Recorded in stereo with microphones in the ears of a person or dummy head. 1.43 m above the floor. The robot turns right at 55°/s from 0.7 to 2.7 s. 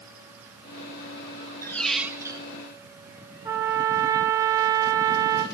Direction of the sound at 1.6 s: 165° left.